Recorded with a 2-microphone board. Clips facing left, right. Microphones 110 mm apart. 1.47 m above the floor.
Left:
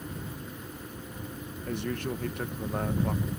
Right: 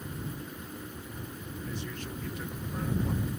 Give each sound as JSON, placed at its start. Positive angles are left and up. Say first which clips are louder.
{"t": 1.6, "sound": "a man speaking", "louder": "left 9 dB", "side_deg": 60}